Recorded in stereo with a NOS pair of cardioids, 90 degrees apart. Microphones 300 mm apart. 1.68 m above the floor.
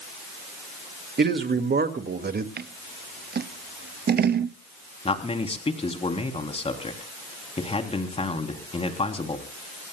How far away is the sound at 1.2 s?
About 2 m.